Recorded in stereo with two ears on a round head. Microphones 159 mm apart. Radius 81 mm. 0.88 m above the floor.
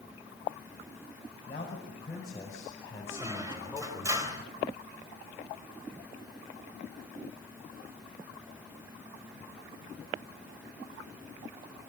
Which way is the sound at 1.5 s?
30° left (ahead or behind).